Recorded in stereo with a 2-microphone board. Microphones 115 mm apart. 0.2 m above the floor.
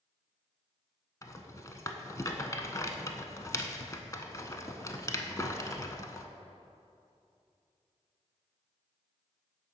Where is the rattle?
30° left (ahead or behind), 0.6 m.